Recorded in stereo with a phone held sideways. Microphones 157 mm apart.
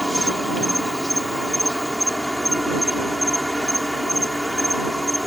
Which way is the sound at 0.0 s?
Centre (ahead or behind).